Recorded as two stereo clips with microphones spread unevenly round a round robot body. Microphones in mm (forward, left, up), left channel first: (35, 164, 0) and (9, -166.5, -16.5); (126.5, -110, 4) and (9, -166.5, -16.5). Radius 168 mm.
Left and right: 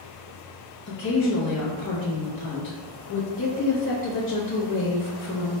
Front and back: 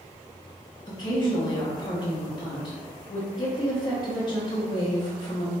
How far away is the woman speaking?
About 0.8 m.